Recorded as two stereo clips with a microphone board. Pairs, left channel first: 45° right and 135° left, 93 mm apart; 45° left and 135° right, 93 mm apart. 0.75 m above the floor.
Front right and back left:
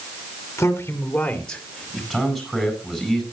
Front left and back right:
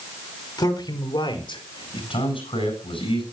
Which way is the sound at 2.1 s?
45° left.